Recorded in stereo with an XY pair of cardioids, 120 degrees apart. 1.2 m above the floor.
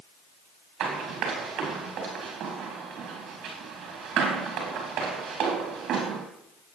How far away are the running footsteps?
About 4 m.